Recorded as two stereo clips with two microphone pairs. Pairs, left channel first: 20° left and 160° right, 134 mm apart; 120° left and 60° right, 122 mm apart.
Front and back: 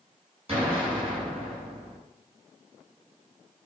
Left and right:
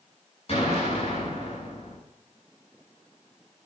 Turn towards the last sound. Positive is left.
turn(degrees=155)